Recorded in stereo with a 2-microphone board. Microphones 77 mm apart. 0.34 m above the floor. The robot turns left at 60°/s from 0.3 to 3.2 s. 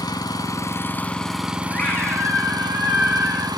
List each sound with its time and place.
0.0 s an engine running: 65° left, 0.9 m; by 3.6 s 110° right, 0.9 m
1.7 s a scream: 35° left, 1.3 m; by 3.5 s 60° right, 1.3 m